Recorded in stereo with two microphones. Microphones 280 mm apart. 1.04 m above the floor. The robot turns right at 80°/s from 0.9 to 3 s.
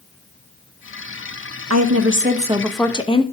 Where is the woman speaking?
85° right, 1.2 m; by 3.2 s 20° left, 1.2 m.